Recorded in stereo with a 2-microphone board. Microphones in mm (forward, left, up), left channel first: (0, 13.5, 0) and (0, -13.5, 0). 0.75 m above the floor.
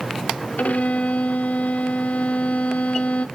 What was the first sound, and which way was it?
A violin, 75° left (ahead or behind).